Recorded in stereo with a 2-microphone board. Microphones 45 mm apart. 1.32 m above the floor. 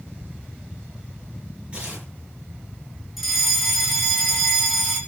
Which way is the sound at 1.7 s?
25° right (ahead or behind).